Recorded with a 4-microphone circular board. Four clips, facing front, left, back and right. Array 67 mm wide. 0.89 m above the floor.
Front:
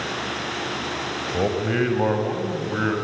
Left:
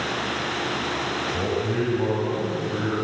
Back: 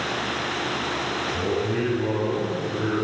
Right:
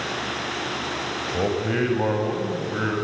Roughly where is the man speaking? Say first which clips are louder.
Right 4 dB, front 5 dB; ahead right.